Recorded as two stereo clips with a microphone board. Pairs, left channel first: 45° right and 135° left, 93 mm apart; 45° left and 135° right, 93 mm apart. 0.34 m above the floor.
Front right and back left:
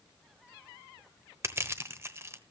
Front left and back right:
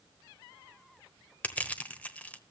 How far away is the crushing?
About 1.1 m.